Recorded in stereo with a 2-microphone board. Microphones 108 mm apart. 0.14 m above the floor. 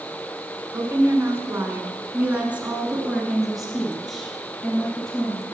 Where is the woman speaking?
25° right (ahead or behind), 1.3 m; by 5.5 s 5° left (ahead or behind), 2.5 m.